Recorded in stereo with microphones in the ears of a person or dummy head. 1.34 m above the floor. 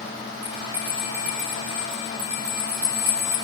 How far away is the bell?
About 1.3 m.